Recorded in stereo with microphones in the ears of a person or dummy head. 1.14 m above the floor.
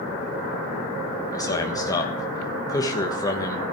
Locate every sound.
1.3 s a man speaking: 20° left (ahead or behind), 1.5 m